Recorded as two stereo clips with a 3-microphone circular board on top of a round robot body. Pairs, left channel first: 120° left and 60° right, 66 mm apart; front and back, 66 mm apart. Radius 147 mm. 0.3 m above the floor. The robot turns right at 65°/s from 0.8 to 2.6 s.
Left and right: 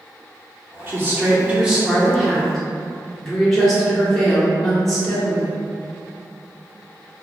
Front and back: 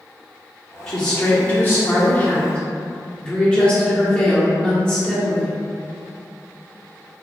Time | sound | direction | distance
0.9 | a woman speaking | 70° right | 1.1 m